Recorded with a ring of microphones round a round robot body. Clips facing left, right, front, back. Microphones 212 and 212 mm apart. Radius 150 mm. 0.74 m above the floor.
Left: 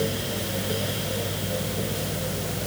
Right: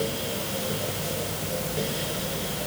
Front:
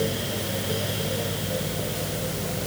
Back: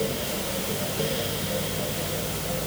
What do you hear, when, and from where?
Only background noise.